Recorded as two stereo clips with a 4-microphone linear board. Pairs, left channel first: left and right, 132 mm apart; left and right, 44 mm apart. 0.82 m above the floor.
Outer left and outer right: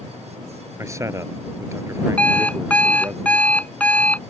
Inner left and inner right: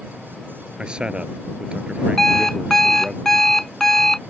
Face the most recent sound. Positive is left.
turn(degrees=10)  # may be behind; listen again after turning